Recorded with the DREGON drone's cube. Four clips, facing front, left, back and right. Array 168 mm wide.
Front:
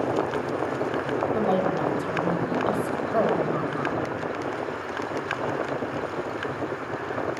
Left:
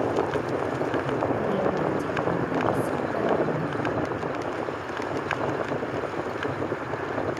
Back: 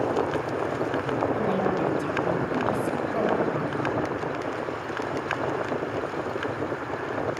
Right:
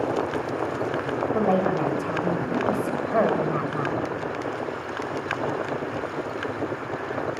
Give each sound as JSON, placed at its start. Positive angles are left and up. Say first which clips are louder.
{"t": 1.3, "sound": "a woman speaking", "louder": "right 3 dB, front 1 dB", "azimuth_deg": -65, "distance_m": 3.5}